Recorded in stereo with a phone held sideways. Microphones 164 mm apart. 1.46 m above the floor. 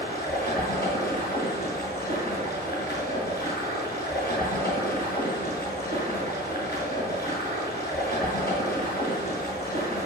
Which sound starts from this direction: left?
Running water, at 0.0 s.